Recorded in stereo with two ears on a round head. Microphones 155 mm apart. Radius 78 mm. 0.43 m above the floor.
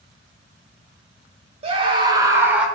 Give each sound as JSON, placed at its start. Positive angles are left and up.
{"t": 1.6, "sound": "a scream", "side_deg": -35, "distance_m": 1.3}